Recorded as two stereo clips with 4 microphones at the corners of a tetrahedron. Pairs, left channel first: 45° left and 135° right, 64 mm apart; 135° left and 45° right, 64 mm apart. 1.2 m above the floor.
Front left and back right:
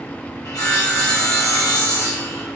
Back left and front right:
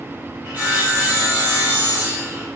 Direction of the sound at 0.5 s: 15° left.